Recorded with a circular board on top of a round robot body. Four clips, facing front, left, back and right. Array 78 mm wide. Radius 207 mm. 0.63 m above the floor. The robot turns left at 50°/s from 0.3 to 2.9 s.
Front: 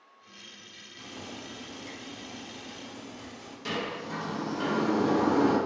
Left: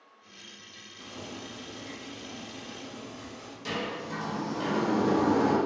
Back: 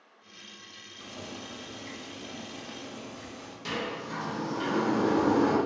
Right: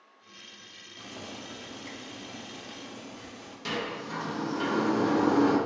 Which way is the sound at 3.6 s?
100° right.